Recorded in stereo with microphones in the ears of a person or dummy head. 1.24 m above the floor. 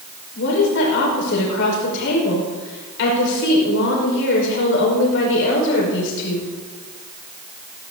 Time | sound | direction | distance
0.3 | a woman speaking | 65° left (ahead or behind) | 5.5 m